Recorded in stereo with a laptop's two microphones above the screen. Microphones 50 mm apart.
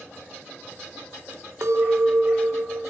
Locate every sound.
1.6 s a clink: 60° right (ahead or behind), 0.6 m